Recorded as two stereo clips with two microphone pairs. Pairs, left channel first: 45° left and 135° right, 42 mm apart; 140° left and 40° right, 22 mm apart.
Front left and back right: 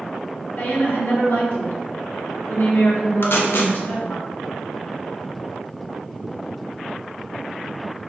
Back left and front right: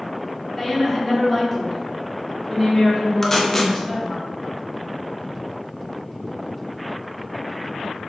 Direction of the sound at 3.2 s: 70° left.